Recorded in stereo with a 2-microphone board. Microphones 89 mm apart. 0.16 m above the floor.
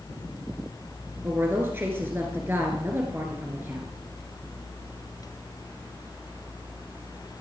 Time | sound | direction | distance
1.2 | a woman speaking | 25° right (ahead or behind) | 2.5 m